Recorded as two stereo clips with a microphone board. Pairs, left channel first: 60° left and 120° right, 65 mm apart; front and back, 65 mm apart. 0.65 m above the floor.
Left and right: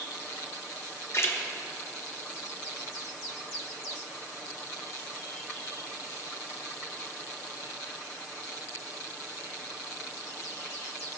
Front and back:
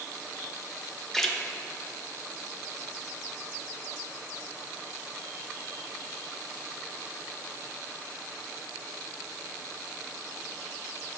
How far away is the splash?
About 0.9 m.